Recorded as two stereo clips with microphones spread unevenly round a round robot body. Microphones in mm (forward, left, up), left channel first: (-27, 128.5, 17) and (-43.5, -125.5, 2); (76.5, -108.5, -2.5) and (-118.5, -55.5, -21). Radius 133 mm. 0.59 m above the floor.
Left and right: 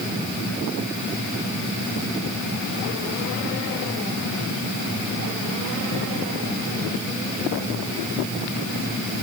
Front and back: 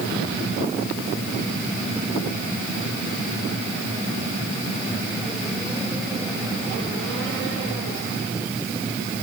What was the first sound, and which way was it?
Only background noise.